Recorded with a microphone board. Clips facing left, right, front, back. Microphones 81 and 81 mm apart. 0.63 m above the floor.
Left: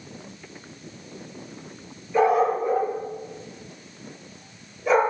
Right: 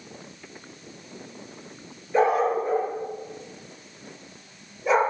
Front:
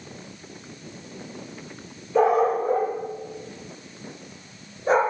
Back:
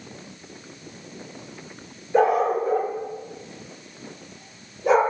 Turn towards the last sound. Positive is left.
turn(degrees=-165)